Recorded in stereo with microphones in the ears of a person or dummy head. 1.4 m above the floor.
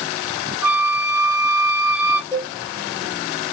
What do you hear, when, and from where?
0.6 s a flute: 5° right (ahead or behind), 0.7 m
2.3 s a cowbell: 15° left (ahead or behind), 1.2 m